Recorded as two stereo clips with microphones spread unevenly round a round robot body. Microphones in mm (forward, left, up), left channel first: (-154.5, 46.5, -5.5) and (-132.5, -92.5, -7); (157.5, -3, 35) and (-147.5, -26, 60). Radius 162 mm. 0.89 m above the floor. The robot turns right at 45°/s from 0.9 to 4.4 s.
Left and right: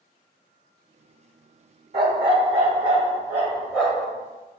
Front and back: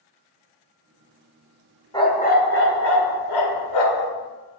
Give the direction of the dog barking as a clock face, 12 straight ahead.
3 o'clock.